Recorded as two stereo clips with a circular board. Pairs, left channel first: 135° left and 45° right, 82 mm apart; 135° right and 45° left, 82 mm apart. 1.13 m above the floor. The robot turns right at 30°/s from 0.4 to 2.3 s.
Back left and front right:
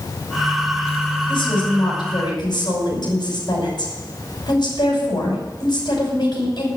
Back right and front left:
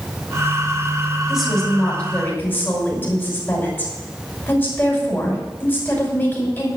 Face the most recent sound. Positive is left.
turn(degrees=160)